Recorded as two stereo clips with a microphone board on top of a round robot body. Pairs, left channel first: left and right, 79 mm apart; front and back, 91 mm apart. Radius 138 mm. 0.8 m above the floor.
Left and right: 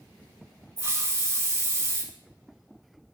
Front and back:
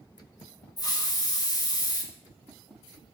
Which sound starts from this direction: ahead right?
A hiss, at 0.8 s.